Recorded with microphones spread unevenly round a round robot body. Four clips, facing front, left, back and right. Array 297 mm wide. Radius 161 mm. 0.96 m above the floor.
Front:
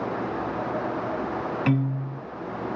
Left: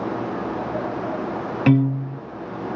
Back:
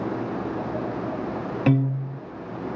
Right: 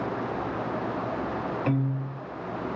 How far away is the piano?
About 0.6 m.